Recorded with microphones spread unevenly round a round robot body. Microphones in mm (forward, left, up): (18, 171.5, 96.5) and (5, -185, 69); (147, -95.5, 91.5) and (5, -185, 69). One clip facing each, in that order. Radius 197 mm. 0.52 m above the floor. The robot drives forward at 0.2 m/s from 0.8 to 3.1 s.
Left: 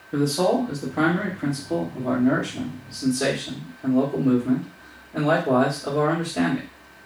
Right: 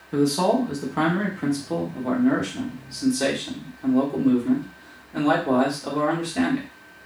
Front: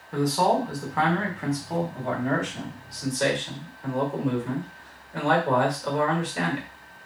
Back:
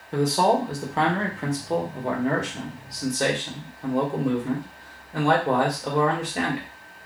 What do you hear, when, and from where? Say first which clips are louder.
0.1 s a man speaking: right 1 dB, back 2 dB; 115° right, 1.1 m; by 6.7 s 140° right, 1.3 m